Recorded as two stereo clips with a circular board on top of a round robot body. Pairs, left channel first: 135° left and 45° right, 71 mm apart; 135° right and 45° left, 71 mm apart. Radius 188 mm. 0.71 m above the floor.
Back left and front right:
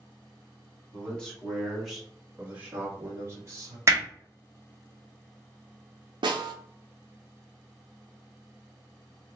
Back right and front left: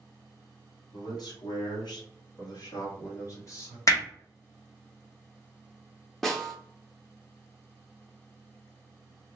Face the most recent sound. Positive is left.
turn(degrees=-50)